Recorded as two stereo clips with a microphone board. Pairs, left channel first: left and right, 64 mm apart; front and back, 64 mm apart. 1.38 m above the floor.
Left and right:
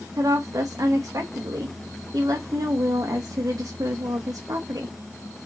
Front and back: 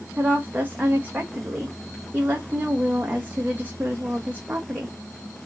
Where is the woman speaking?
115° right, 0.7 m.